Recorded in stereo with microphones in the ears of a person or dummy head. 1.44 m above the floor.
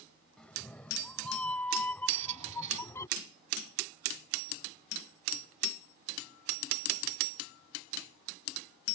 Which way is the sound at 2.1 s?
45° right (ahead or behind).